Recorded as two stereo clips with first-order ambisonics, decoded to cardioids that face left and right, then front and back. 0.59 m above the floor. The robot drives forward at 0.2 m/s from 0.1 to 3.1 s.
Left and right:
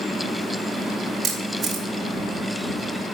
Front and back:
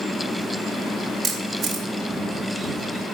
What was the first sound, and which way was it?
A camera shutter, 140° right.